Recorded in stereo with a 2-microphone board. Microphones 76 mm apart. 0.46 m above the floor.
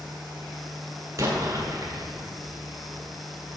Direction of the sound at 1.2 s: 45° right (ahead or behind).